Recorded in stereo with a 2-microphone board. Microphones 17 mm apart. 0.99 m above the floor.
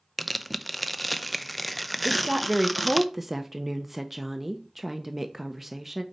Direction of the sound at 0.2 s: 5° right (ahead or behind).